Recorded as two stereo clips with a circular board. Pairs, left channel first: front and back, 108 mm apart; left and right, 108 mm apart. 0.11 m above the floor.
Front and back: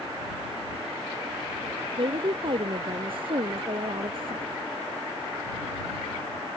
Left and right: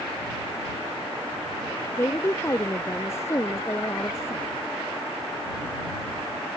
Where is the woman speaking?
155° left.